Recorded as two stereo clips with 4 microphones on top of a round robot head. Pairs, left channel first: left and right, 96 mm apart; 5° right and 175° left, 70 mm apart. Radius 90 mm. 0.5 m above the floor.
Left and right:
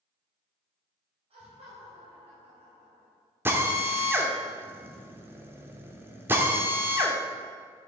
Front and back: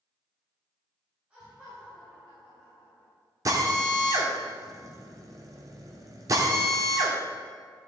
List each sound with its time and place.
1.3 s laughter: 105° right, 3 m; by 3.1 s 95° right, 3.5 m
3.5 s a drill: 155° right, 1.6 m